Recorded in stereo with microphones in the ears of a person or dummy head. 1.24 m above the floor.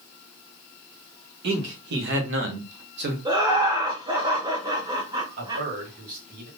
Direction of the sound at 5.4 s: 50° right (ahead or behind).